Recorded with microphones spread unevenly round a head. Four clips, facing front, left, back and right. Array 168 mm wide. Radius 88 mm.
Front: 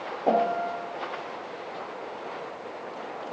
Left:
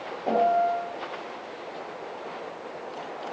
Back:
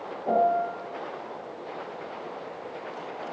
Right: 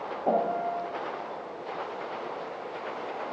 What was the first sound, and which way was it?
A piano, 10° right.